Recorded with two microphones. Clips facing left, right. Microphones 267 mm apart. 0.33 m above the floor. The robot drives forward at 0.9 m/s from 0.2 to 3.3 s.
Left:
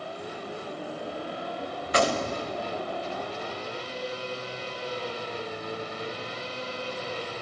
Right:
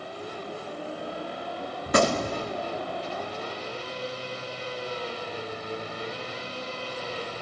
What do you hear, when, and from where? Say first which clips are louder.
1.9 s a gunshot: right 3 dB; 50° right (ahead or behind), 0.6 m; by 2.5 s 30° right (ahead or behind), 0.9 m